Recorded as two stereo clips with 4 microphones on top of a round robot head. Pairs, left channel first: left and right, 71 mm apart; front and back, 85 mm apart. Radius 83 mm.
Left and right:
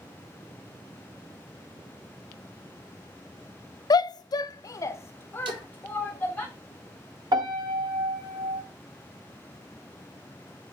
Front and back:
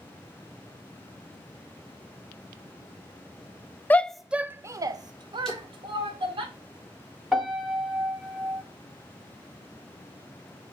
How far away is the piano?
About 1.8 m.